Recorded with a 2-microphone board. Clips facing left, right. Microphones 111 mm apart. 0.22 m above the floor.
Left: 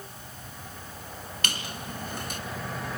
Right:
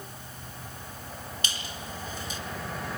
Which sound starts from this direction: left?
A squeak, at 1.4 s.